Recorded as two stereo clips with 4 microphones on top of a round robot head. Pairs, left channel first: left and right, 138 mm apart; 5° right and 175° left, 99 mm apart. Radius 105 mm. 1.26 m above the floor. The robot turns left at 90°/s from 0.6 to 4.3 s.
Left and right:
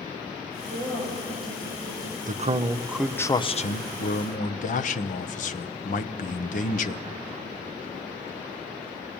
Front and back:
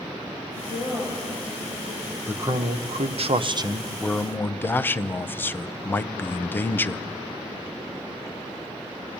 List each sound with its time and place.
0.6 s a woman speaking: 20° right, 6.5 m; by 2.2 s 160° right, 6.5 m
2.3 s a man speaking: 110° right, 0.8 m; by 7.0 s 65° left, 0.8 m